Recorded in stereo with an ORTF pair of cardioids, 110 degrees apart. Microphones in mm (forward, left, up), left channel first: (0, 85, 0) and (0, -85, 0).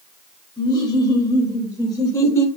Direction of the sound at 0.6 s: 25° left.